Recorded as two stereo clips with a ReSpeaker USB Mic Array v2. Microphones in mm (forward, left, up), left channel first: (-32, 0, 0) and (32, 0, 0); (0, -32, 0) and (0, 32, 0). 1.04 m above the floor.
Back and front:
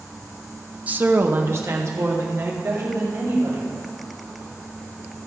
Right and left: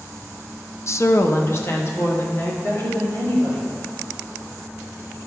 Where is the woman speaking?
60° right, 0.5 m; by 3.7 s 40° right, 3.5 m.